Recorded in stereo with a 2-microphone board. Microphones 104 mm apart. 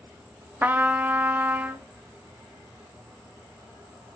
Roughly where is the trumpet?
Centre.